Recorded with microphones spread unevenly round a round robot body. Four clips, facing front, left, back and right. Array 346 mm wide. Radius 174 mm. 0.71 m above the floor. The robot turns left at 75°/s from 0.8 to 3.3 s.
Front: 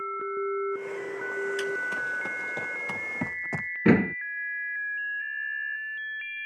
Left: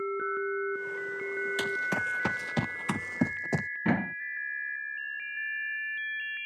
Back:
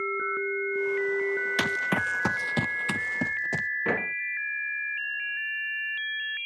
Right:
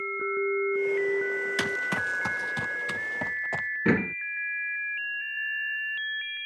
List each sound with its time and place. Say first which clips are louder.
1.6 s running footsteps: right 1 dB, back 2 dB; 150° right; by 3.7 s 85° left
3.9 s a door slam: right 4 dB, front 10 dB; straight ahead